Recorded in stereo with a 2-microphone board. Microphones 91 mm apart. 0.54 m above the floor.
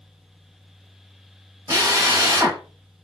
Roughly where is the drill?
Right.